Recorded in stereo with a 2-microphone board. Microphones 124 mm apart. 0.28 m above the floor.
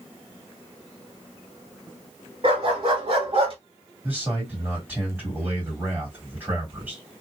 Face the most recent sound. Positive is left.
turn(degrees=-15)  # may be behind; listen again after turning